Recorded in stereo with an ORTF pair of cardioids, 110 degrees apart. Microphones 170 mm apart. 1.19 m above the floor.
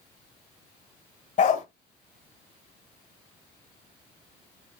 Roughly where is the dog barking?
Ahead left.